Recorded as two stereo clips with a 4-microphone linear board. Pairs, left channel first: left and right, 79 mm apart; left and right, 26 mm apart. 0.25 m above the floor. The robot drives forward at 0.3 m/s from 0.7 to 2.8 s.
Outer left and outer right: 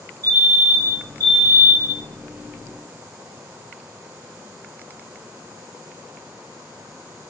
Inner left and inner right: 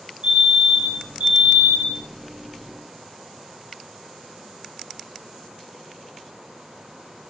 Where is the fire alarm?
55° right (ahead or behind), 5.5 m; by 2.0 s 60° right (ahead or behind), 5.5 m.